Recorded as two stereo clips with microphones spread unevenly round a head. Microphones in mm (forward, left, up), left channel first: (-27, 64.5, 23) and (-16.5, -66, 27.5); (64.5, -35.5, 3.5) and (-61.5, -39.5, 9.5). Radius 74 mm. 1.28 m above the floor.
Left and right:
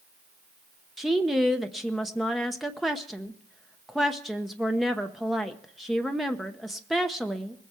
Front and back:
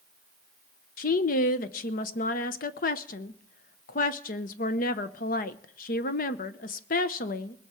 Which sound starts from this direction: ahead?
A woman speaking, at 1.0 s.